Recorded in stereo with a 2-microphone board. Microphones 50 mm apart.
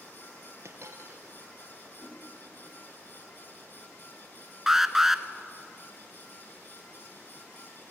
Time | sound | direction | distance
0.7 | a dropped coin | 60° right (ahead or behind) | 2.5 m
2.0 | a whoosh | 5° left (ahead or behind) | 7 m
4.7 | an alarm | 10° right (ahead or behind) | 0.9 m